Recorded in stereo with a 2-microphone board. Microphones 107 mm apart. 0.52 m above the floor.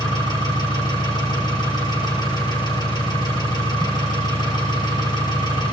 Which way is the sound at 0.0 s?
45° left (ahead or behind).